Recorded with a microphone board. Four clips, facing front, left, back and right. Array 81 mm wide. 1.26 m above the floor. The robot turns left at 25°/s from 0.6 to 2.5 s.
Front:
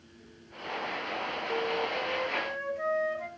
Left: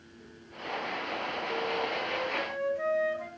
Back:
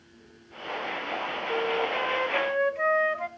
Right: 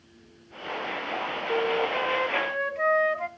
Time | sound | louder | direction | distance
1.5 | a flute | right 8 dB, back 4 dB | 115° right | 0.9 m